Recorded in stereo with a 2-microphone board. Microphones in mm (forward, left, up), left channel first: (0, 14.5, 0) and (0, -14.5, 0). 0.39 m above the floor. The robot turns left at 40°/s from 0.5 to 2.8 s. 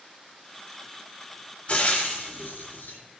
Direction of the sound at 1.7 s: 40° left (ahead or behind).